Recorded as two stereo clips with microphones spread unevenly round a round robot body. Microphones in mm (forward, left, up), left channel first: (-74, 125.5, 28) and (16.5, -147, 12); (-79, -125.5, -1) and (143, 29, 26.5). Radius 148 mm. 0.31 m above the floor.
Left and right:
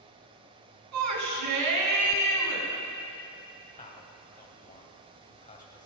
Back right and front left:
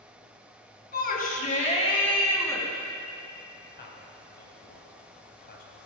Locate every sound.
0.9 s a shout: 95° right, 4 m; by 2.7 s 65° right, 3.5 m
3.8 s a man speaking: 170° left, 2.5 m